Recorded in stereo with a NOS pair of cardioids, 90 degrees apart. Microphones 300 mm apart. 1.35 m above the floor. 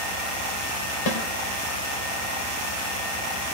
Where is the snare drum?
60° left, 3 m.